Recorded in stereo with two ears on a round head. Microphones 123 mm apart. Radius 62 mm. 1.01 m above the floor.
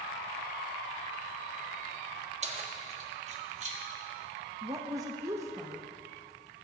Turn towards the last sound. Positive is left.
turn(degrees=-25)  # may be behind; listen again after turning